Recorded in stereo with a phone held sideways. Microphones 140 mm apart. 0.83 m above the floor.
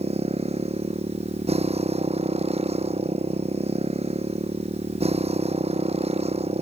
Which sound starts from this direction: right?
A motorcycle, at 0.0 s.